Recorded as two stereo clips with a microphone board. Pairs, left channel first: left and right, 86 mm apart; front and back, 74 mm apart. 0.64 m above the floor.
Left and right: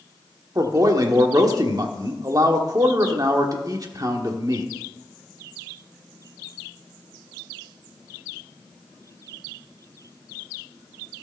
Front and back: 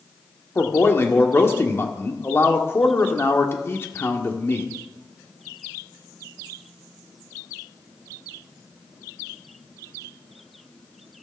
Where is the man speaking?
50° right, 1.3 m.